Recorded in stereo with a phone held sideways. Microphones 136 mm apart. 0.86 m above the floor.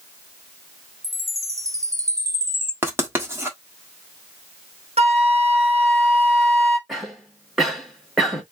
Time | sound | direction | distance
1.0 | a chime | 25° right (ahead or behind) | 1.2 m
2.8 | writing | 15° right (ahead or behind) | 1.5 m
5.0 | a flute | 50° right (ahead or behind) | 0.9 m
6.9 | a cough | centre (ahead or behind) | 1.7 m